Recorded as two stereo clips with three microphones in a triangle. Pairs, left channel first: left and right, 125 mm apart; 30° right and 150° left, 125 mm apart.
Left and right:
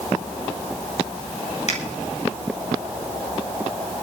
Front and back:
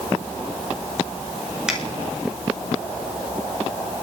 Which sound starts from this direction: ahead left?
A finger snap, at 1.7 s.